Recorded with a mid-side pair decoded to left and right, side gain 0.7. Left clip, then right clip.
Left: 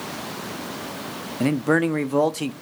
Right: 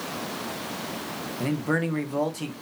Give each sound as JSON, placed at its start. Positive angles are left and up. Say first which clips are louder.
{"t": 1.4, "sound": "a man speaking", "louder": "left 7 dB", "azimuth_deg": 30, "distance_m": 0.6}